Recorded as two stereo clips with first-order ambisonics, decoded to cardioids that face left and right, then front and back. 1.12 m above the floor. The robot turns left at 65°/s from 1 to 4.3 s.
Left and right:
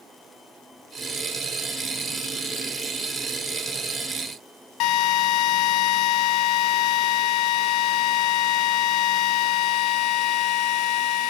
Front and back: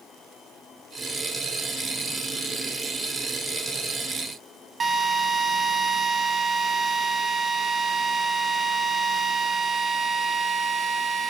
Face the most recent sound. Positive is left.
turn(degrees=110)